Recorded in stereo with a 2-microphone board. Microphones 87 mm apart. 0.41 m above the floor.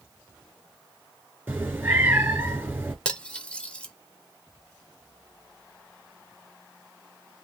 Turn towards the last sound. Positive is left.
turn(degrees=15)  # may be behind; listen again after turning